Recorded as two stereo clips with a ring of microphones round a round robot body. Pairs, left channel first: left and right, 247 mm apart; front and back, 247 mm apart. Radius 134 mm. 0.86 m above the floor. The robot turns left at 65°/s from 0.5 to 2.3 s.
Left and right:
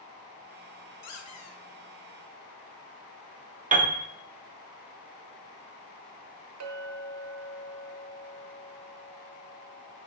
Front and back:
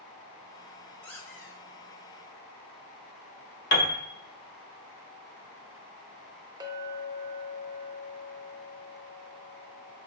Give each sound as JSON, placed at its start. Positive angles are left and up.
{"t": 1.0, "sound": "a squeak", "azimuth_deg": 90, "distance_m": 0.8}
{"t": 3.7, "sound": "a piano", "azimuth_deg": -35, "distance_m": 0.8}
{"t": 6.6, "sound": "a clink", "azimuth_deg": -105, "distance_m": 0.7}